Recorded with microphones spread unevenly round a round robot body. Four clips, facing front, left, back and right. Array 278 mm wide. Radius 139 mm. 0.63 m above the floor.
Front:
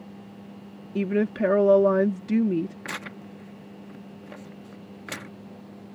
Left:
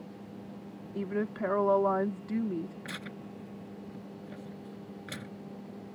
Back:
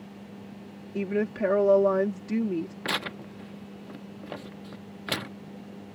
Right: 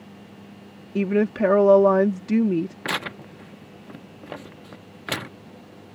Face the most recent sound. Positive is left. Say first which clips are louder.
# right 11 dB, back 4 dB
turn(degrees=-110)